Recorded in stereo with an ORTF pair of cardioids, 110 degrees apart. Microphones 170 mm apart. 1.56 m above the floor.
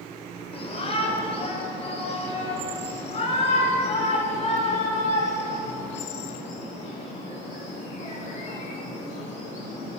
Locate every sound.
0.5 s a shout: 35° left, 6 m; by 10.0 s 40° left, 14.5 m